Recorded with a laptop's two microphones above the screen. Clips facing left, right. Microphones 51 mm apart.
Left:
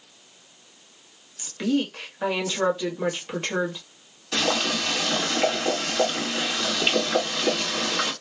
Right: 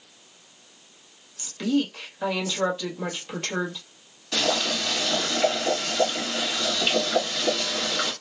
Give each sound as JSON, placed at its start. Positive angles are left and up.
{"t": 1.4, "sound": "a woman speaking", "side_deg": 20, "distance_m": 1.4}
{"t": 4.3, "sound": "boiling", "side_deg": 25, "distance_m": 1.9}